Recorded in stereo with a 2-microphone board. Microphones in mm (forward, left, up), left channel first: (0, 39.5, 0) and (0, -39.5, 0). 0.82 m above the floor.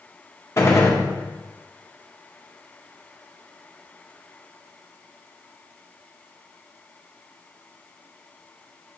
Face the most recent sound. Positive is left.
turn(degrees=40)  # may be behind; listen again after turning